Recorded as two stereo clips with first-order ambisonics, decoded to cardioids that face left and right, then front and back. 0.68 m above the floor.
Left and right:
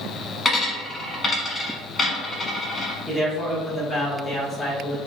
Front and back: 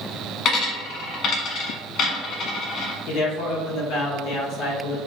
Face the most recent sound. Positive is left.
turn(degrees=15)